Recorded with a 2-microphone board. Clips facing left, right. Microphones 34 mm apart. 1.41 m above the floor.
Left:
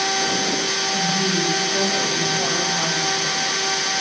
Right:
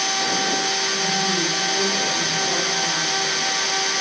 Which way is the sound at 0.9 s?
35° left (ahead or behind).